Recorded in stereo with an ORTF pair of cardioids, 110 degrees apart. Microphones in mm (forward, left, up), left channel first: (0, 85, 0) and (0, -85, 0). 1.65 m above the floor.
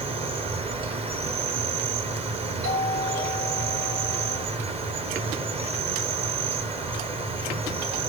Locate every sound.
0.0 s an insect: 35° right, 1.2 m
2.6 s a doorbell: 70° right, 5 m